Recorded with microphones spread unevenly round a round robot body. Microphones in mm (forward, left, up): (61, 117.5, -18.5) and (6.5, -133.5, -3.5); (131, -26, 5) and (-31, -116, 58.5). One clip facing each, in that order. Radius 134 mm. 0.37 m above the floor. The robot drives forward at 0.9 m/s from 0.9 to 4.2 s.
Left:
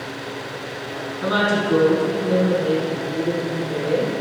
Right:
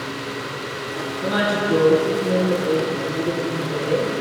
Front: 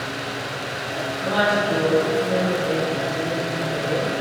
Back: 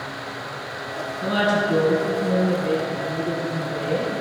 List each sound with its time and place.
1.2 s a woman speaking: 145° left, 3.5 m; by 4.1 s 160° left, 6 m